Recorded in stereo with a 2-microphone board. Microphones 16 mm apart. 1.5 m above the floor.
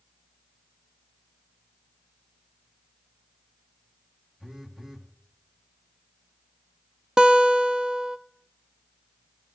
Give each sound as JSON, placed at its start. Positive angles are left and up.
{"t": 4.4, "sound": "a phone buzzing", "side_deg": -35, "distance_m": 1.4}
{"t": 7.2, "sound": "a guitar", "side_deg": -35, "distance_m": 0.6}